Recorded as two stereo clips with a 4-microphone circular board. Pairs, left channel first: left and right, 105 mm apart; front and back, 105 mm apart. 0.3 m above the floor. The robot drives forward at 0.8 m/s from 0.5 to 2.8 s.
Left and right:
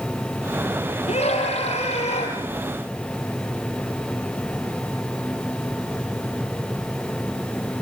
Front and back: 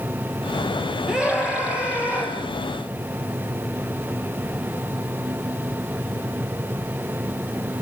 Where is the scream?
95° left, 9.5 m; by 2.4 s 105° left, 9.5 m.